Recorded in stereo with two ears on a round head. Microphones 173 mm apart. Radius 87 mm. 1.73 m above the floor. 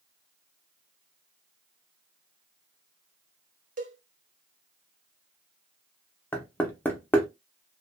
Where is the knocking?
10° left (ahead or behind), 0.6 m.